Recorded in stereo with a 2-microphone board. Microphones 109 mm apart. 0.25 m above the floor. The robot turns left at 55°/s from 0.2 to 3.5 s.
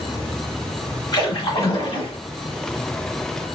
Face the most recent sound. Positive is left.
turn(degrees=0)